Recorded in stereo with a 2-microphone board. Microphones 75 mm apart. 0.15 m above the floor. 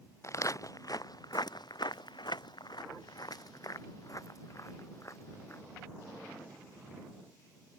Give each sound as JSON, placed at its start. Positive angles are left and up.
{"t": 0.2, "sound": "footsteps", "side_deg": 40}